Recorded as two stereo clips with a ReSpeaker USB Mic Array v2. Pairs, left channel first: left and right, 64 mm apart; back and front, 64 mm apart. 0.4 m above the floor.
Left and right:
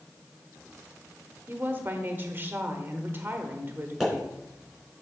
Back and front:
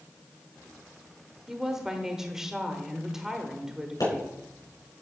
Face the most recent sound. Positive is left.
turn(degrees=180)